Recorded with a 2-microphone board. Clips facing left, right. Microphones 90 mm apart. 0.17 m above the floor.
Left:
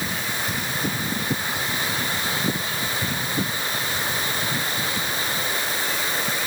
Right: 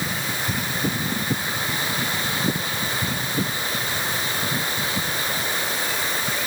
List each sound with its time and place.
Only background noise.